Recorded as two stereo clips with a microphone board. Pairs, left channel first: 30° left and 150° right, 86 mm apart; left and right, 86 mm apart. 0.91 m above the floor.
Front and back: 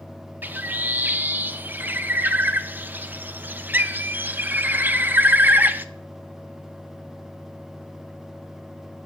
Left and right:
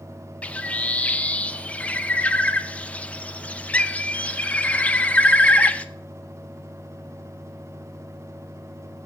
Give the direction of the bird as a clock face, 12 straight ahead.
7 o'clock.